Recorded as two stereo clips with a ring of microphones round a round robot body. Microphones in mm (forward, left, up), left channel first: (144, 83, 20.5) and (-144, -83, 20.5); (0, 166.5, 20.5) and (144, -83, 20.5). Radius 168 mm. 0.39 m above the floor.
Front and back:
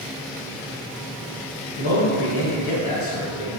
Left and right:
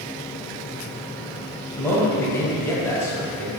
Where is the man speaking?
40° left, 2.5 m.